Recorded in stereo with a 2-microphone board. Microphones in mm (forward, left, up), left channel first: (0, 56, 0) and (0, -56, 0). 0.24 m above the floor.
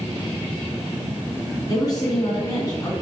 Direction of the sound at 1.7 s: 35° left (ahead or behind).